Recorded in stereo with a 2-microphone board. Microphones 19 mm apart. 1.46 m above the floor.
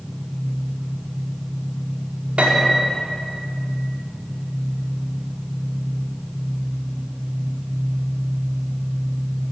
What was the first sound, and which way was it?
An engine running, 30° right (ahead or behind).